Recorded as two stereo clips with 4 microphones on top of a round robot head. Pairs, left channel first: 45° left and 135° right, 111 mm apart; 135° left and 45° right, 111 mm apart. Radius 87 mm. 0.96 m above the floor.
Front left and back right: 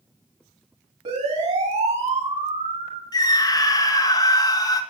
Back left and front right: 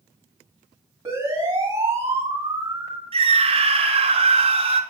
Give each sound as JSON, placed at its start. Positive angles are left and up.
{"t": 1.1, "sound": "a siren", "azimuth_deg": -110, "distance_m": 7.0}
{"t": 3.1, "sound": "a scream", "azimuth_deg": -10, "distance_m": 2.5}